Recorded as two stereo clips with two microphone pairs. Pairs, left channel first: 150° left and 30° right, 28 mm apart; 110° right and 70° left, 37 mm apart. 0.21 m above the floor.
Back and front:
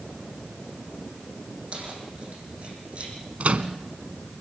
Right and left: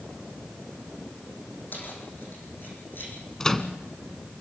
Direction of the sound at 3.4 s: 40° right.